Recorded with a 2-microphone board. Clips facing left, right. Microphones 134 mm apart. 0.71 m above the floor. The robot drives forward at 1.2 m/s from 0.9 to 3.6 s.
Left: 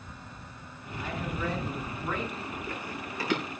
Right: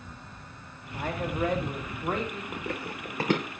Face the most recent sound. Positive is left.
turn(degrees=-40)  # may be behind; listen again after turning